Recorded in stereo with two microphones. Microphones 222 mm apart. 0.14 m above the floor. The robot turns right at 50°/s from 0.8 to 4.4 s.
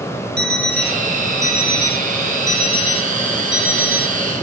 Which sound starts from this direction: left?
An alarm clock, at 0.4 s.